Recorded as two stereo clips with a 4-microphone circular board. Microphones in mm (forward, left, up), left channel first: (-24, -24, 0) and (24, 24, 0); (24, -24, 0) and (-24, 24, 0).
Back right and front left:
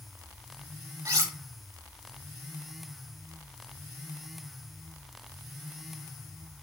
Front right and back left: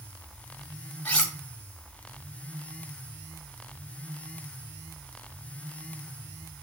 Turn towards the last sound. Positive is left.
turn(degrees=25)